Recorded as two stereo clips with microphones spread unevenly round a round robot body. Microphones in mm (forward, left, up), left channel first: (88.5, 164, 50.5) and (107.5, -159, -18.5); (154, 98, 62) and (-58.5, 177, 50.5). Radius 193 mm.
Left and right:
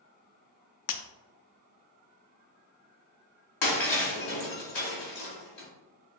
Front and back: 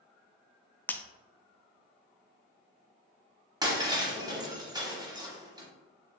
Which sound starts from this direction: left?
Breaking glass, at 3.6 s.